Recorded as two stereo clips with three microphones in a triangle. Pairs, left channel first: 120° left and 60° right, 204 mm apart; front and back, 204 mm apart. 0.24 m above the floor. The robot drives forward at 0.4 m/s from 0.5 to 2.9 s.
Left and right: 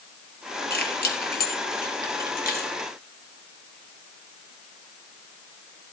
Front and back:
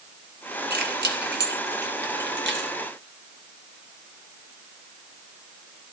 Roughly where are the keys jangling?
Behind left.